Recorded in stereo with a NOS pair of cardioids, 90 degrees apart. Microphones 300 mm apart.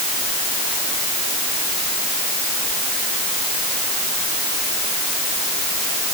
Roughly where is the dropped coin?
I don't hear a dropped coin.